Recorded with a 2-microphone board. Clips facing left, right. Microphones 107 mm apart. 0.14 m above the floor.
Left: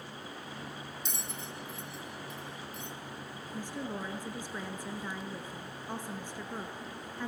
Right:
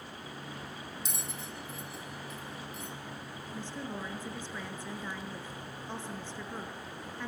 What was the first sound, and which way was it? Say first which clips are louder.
A bell: even; centre (ahead or behind).